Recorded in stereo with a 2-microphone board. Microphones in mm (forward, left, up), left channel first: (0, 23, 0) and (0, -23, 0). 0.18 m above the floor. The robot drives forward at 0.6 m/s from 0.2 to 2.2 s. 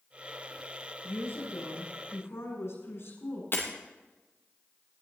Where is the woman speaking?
65° left (ahead or behind), 8 m.